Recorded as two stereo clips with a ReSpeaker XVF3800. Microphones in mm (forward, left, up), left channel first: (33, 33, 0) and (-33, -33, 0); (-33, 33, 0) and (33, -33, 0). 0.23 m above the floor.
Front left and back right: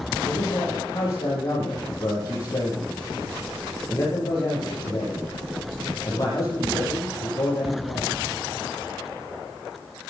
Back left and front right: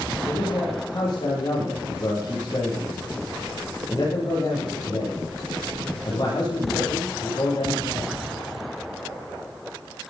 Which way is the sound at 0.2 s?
95° left.